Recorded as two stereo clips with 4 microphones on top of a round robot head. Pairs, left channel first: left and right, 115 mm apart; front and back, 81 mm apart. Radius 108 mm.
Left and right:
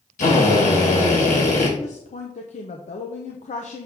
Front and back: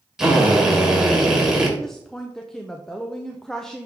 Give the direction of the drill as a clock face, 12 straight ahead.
9 o'clock.